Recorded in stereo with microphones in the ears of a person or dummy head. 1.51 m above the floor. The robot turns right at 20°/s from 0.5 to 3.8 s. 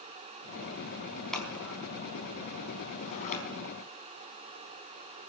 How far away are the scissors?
About 4 m.